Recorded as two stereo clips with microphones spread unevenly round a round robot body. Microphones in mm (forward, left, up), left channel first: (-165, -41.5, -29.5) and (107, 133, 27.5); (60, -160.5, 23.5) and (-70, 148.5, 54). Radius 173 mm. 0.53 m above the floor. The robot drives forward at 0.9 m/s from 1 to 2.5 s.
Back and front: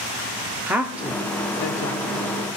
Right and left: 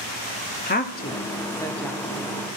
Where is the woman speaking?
65° right, 0.8 m; by 2.4 s 160° right, 1.3 m.